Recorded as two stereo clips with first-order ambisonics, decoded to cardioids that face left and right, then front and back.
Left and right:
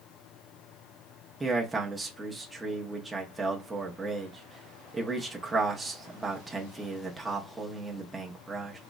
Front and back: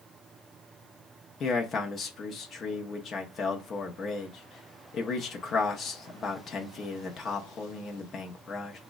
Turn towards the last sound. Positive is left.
turn(degrees=-15)